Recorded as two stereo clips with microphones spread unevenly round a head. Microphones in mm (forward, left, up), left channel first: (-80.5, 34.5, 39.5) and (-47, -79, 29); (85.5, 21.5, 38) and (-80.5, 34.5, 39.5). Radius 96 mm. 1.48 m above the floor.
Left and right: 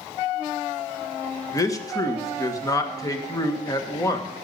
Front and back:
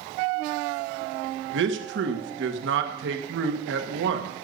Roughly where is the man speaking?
Behind.